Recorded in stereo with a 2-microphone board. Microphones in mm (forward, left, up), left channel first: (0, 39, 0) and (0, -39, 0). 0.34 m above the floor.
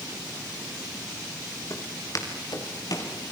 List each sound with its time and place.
1.7 s footsteps: 45° left (ahead or behind), 5.5 m; by 3.1 s 50° left (ahead or behind), 7 m